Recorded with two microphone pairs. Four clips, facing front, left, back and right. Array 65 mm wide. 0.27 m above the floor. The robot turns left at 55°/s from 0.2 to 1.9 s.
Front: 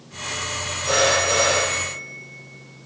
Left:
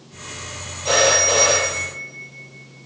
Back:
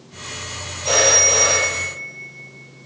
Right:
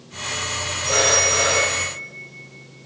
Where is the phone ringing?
135° left, 5.5 m; by 2.9 s 75° left, 5.5 m.